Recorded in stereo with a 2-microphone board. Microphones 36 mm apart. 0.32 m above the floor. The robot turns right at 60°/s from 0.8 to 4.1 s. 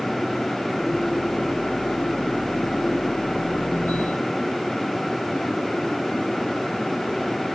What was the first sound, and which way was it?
Only background noise.